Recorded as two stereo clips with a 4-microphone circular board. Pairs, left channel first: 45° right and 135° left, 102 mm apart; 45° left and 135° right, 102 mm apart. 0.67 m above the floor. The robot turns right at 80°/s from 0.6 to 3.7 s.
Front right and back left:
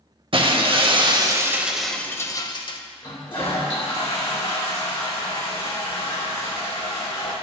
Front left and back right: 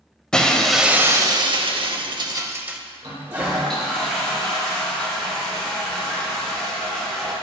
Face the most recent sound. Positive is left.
turn(degrees=-40)